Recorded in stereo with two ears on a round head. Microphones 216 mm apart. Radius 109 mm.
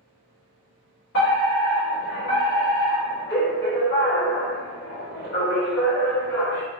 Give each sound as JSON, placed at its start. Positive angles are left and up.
{"t": 1.1, "sound": "a fire alarm", "side_deg": 50, "distance_m": 1.4}